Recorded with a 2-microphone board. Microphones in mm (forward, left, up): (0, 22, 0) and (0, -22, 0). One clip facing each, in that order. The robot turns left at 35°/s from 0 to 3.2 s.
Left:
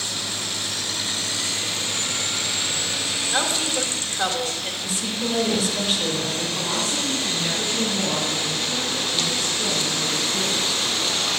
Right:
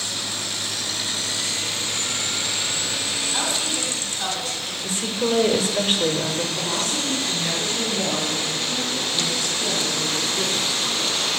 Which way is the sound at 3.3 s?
50° left (ahead or behind).